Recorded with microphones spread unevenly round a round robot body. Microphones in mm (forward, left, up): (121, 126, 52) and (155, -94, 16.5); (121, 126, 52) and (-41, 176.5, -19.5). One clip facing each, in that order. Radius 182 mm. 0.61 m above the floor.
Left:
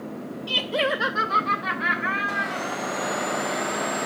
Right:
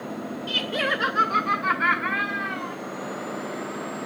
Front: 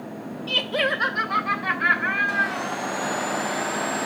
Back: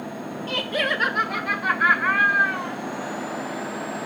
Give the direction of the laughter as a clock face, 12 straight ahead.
5 o'clock.